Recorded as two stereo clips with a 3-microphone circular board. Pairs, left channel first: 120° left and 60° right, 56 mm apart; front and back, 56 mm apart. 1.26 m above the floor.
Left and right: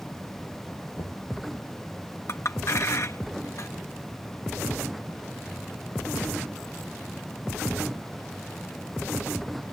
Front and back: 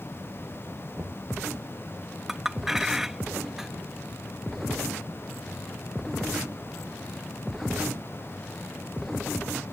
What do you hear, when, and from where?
1.0 s knocking: 110° left
2.3 s a clink: 100° left